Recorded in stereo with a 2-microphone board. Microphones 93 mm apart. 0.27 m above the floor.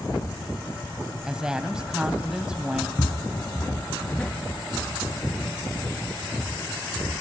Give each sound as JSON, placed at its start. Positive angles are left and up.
{"t": 1.2, "sound": "a woman speaking", "side_deg": -10, "distance_m": 1.3}
{"t": 3.0, "sound": "footsteps", "side_deg": 40, "distance_m": 1.0}